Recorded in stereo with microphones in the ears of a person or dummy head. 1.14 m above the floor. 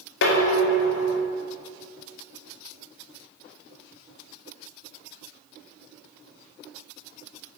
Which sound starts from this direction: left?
Dishes clattering, at 0.2 s.